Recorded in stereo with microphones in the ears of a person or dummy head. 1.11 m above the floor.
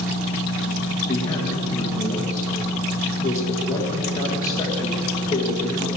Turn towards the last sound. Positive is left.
turn(degrees=15)  # may be behind; listen again after turning